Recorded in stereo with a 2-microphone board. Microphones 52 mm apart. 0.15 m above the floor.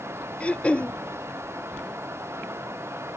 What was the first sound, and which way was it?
Throat clearing, 25° left (ahead or behind).